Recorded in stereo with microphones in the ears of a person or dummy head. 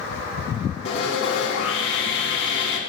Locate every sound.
0.8 s sawing: 70° left (ahead or behind), 2.5 m